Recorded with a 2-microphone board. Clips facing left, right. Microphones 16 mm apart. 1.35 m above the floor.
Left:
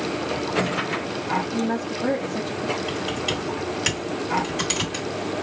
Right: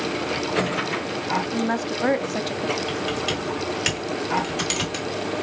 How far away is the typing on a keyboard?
About 1.6 m.